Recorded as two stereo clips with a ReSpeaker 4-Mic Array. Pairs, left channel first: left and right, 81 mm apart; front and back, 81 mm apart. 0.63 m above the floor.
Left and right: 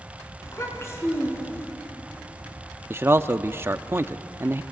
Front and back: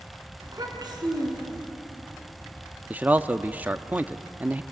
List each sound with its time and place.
0.4 s a child speaking: 145° left, 4.5 m; by 1.7 s 155° left, 5.5 m
2.9 s a man speaking: 125° right, 0.6 m